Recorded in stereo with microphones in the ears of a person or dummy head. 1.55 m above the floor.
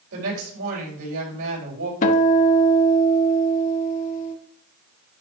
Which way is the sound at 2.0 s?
45° left (ahead or behind).